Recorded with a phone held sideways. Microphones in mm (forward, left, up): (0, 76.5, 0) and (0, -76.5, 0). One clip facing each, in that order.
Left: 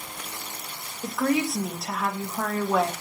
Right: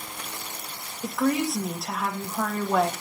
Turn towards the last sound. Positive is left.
turn(degrees=0)  # may be behind; listen again after turning